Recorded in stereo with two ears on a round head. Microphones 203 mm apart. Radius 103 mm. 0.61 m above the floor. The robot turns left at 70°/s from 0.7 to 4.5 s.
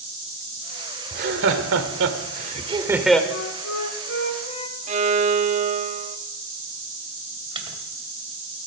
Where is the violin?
30° right (ahead or behind), 0.9 m.